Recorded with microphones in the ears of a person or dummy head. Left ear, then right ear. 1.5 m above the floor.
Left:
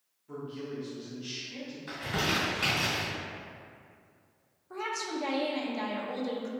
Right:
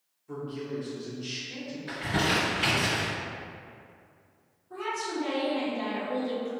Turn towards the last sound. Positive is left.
turn(degrees=65)  # may be behind; listen again after turning